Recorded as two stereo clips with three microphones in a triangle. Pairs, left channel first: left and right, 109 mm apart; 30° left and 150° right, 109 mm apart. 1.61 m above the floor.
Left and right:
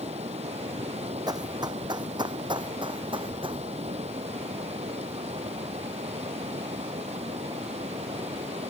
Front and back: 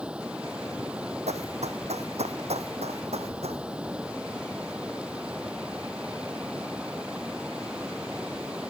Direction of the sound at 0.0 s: 70° right.